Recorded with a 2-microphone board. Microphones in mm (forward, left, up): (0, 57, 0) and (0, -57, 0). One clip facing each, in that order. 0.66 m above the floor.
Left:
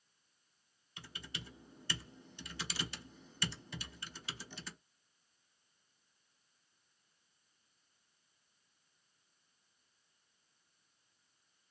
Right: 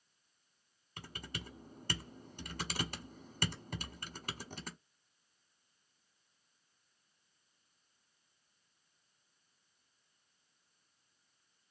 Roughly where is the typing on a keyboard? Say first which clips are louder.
Right 3 dB; right.